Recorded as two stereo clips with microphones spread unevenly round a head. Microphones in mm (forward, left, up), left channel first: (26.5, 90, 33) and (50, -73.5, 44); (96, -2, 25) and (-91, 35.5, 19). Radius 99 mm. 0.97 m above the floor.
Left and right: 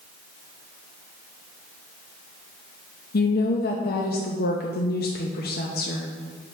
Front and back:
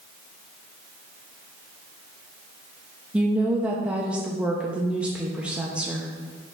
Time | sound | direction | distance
3.1 | a woman speaking | 85° left | 0.9 m